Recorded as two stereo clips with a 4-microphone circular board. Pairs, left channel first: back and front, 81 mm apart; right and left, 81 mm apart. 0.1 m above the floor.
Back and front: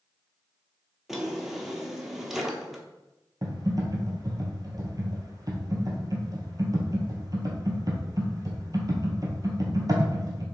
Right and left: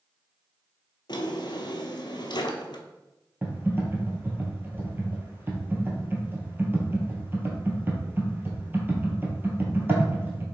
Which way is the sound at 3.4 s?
30° left.